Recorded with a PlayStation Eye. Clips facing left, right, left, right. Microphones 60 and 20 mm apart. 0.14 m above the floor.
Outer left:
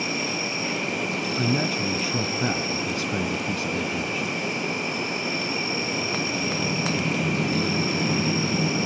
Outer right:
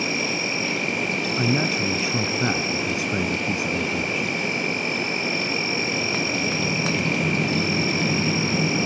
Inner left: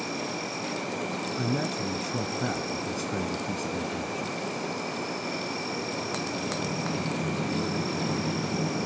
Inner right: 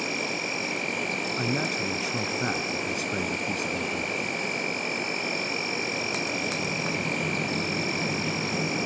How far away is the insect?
About 5 m.